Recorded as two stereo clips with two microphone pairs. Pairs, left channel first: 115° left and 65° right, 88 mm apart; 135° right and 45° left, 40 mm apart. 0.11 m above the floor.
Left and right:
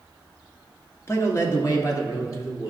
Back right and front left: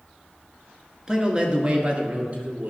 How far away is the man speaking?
About 1.4 m.